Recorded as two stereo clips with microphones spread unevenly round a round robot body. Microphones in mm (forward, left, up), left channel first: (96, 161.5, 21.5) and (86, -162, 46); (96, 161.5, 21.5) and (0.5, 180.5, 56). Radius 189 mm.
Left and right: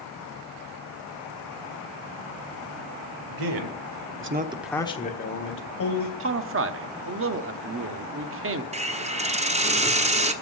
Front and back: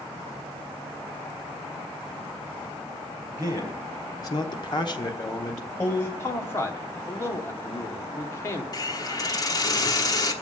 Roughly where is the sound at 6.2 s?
Ahead right.